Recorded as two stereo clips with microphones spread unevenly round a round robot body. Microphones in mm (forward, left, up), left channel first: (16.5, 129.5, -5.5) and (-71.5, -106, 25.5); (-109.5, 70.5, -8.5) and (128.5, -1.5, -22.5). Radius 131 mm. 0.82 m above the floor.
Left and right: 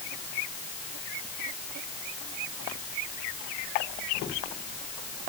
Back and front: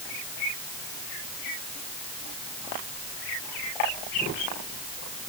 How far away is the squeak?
I don't hear a squeak.